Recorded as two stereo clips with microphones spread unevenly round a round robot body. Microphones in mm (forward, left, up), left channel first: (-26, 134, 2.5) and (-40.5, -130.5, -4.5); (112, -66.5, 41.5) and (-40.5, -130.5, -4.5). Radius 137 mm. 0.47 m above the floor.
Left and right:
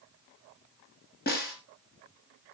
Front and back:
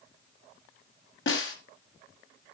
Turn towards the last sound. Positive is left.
turn(degrees=30)